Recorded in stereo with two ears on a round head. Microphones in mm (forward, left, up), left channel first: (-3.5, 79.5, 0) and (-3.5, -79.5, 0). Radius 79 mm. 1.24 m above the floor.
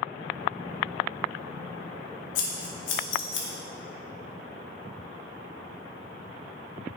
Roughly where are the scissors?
Left.